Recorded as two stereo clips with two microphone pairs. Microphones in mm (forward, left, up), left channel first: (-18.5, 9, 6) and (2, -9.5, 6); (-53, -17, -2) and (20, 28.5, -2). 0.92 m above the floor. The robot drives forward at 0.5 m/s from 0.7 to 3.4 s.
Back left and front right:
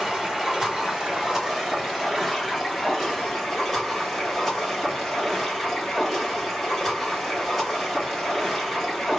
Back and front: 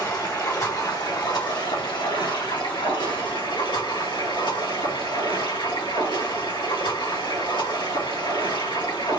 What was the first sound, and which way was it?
Running water, 110° right.